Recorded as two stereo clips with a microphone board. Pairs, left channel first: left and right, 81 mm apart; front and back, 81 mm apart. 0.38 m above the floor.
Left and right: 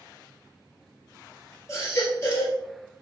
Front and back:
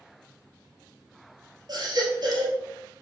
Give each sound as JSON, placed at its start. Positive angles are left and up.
{"t": 1.7, "sound": "a baby crying", "azimuth_deg": 145, "distance_m": 2.0}